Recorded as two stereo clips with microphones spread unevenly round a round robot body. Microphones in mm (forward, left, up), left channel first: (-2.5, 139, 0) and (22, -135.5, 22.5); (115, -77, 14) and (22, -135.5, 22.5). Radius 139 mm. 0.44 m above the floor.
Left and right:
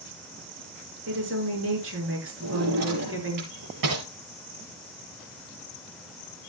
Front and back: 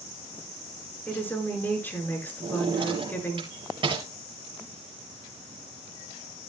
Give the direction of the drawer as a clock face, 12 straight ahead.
4 o'clock.